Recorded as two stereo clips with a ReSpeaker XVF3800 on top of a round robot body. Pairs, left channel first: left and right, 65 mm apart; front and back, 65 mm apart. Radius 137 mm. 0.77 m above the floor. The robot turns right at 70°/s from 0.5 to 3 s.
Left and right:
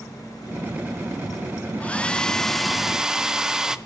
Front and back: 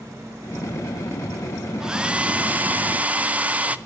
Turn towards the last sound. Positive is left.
turn(degrees=-160)